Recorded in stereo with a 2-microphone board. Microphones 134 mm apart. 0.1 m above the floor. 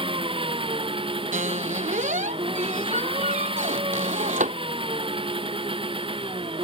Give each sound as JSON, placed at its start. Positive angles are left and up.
{"t": 0.0, "sound": "an engine running", "side_deg": -40}
{"t": 1.3, "sound": "a squeak", "side_deg": -75}